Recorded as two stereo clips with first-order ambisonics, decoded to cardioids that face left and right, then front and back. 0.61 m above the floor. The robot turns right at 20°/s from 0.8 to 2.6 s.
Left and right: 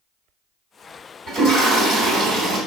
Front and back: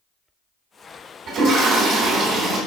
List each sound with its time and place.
1.3 s a toilet flushing: 155° right, 1.7 m; by 2.6 s 125° right, 1.7 m